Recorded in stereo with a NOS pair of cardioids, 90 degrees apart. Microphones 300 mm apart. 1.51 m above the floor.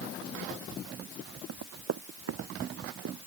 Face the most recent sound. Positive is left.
turn(degrees=-60)